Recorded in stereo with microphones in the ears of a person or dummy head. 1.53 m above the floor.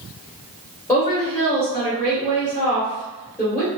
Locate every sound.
0.9 s a woman speaking: 15° left (ahead or behind), 1.2 m